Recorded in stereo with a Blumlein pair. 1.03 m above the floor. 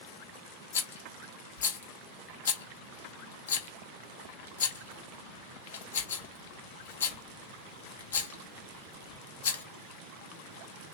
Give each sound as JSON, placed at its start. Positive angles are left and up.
{"t": 0.7, "sound": "a rattle", "azimuth_deg": 65, "distance_m": 1.0}